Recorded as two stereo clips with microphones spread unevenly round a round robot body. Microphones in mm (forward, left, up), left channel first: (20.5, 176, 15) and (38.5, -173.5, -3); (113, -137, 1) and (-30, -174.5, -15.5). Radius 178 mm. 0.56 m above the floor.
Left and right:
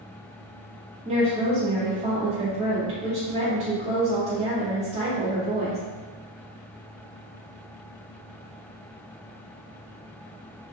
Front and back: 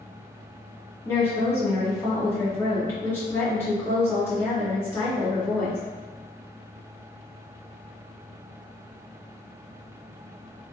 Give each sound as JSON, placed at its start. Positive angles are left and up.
{"t": 1.1, "sound": "a woman speaking", "azimuth_deg": -55, "distance_m": 0.6}